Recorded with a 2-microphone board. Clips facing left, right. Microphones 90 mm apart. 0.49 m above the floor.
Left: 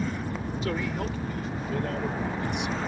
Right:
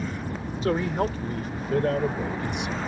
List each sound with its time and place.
0.6 s a man speaking: 40° right (ahead or behind); by 2.8 s 60° right (ahead or behind)